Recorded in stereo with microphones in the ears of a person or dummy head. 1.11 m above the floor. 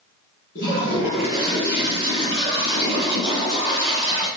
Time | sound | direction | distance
0.6 | a toilet flushing | 45° left (ahead or behind) | 3 m